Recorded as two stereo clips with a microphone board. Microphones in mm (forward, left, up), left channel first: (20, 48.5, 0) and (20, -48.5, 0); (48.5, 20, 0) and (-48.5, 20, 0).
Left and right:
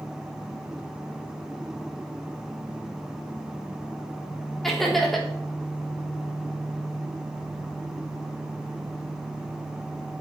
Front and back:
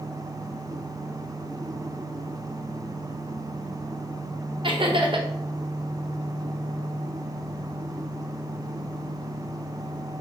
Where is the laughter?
Straight behind, 0.9 m.